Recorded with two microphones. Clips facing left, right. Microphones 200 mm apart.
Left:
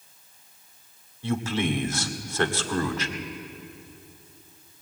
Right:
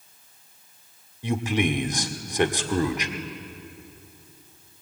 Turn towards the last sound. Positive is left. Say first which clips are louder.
# right 2 dB
turn(degrees=-15)  # may be behind; listen again after turning